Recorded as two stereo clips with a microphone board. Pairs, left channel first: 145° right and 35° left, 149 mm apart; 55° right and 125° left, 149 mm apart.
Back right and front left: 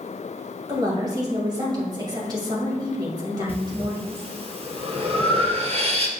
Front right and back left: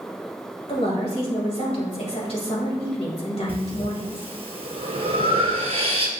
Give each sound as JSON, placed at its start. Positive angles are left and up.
{"t": 0.7, "sound": "a woman speaking", "azimuth_deg": -20, "distance_m": 2.5}
{"t": 3.5, "sound": "breathing", "azimuth_deg": 80, "distance_m": 1.3}